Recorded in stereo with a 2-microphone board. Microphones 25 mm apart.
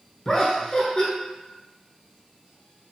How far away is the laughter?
About 1.2 m.